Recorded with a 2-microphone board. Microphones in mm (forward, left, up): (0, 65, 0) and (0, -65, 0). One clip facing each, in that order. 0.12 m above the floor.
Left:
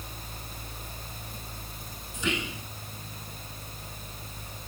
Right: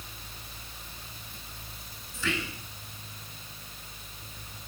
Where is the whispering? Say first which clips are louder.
Left 2 dB; 20° left (ahead or behind), 1.8 m.